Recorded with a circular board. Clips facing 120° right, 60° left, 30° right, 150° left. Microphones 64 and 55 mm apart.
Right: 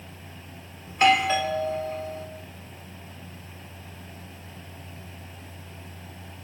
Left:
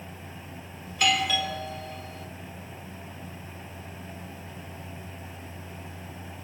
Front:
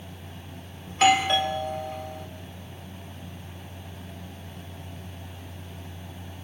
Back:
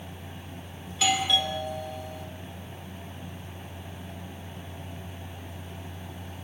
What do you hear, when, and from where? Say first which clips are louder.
0.9 s a doorbell: right 5 dB, front 6 dB; 65° right, 2.5 m